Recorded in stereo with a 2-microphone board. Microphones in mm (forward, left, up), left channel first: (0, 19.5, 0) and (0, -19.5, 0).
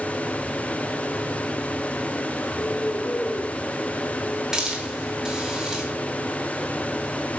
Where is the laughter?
I don't hear laughter.